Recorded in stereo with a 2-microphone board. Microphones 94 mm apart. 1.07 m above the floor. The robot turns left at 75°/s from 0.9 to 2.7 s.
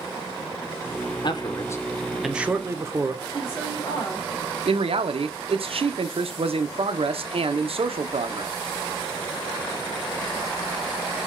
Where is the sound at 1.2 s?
70° left, 0.6 m; by 3.2 s 35° right, 0.6 m.